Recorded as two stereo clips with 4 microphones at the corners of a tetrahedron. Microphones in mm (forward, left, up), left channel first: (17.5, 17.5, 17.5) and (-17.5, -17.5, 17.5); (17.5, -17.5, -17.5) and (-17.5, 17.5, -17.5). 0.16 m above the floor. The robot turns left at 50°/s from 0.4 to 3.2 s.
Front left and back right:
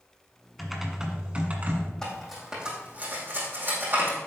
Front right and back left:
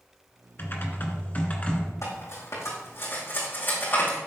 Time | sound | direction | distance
0.6 | typing on a keyboard | 45° right | 1.6 m
2.0 | cutlery clinking | 35° right | 4.5 m